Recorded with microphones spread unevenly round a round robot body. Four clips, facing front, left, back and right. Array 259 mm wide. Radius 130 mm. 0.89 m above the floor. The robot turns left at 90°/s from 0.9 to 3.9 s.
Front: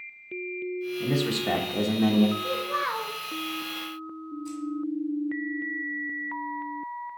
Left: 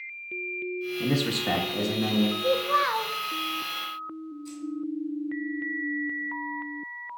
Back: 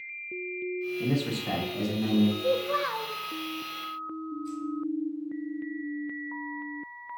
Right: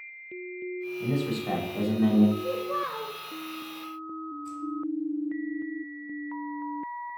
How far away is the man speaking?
About 1.3 m.